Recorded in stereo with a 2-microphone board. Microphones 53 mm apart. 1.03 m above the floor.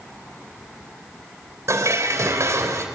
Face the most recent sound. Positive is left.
turn(degrees=-75)  # may be behind; listen again after turning